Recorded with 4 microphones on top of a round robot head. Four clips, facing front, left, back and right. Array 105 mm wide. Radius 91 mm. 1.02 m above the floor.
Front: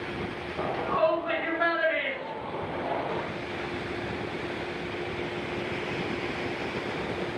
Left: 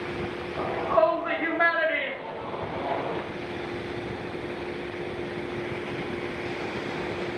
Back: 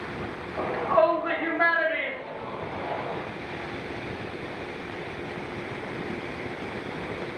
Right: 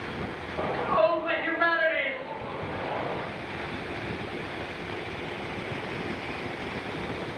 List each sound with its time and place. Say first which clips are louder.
0.6 s a shout: left 1 dB, back 4 dB; 150° left, 2 m; by 3.2 s 75° left, 1.4 m